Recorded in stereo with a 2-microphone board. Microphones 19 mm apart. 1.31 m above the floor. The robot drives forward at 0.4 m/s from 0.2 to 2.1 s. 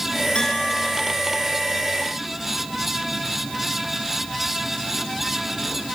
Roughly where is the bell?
Left.